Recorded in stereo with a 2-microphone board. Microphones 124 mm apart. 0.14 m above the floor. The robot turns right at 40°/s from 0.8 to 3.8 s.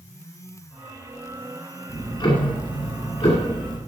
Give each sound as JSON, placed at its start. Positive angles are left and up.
{"t": 1.9, "sound": "ticking", "azimuth_deg": 40, "distance_m": 1.9}